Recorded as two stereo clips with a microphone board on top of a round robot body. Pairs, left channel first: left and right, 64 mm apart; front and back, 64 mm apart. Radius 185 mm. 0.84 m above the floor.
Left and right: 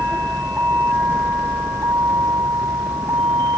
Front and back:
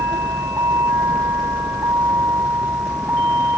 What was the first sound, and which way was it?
A vehicle, 155° right.